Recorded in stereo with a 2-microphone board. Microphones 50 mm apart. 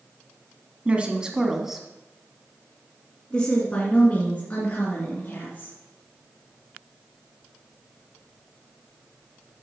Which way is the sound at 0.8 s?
30° right (ahead or behind).